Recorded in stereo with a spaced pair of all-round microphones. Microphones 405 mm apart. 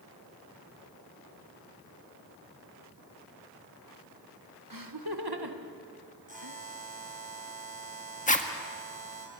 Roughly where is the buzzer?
Right.